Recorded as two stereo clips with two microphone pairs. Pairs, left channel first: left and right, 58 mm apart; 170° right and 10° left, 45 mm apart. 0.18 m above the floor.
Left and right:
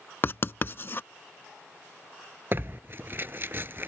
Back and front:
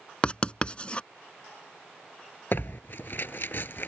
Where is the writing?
130° left.